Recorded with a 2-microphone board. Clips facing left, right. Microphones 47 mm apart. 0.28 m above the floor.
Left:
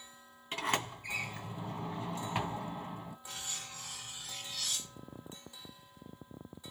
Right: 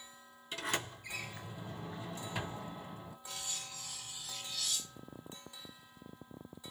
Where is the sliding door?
40° left (ahead or behind), 2.5 m.